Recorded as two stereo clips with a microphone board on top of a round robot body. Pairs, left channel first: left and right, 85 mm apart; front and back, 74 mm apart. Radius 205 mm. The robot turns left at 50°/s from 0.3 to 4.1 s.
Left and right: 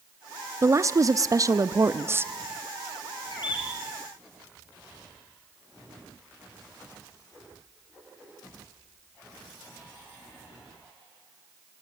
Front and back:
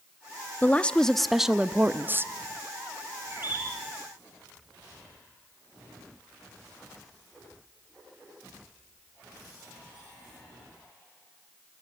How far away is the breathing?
I don't hear breathing.